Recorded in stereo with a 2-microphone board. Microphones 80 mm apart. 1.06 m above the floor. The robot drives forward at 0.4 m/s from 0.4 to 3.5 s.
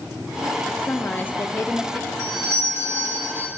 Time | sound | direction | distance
0.7 | a woman speaking | 20° left (ahead or behind) | 0.7 m
2.2 | a doorbell | 35° right (ahead or behind) | 1.9 m